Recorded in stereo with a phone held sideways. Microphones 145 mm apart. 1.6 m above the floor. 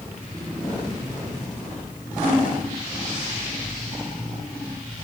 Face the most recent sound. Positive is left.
No sound to turn to.